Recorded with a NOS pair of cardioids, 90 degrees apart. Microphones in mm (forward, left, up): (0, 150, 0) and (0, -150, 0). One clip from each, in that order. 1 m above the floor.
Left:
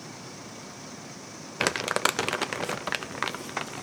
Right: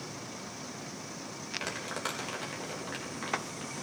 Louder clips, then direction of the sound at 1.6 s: Left 13 dB; 70° left.